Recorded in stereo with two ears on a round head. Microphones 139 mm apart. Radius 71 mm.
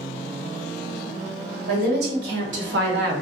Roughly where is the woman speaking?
Right.